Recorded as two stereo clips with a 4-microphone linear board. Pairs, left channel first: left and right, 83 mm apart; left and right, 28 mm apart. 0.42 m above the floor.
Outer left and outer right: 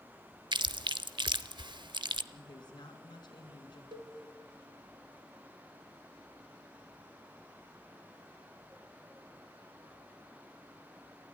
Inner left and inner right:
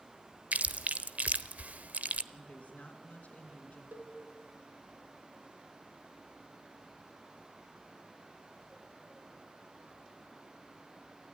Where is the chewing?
60° right (ahead or behind), 0.7 m.